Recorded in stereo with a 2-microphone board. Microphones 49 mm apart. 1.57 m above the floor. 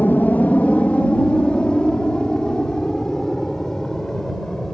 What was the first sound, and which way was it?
An aircraft, 35° left (ahead or behind).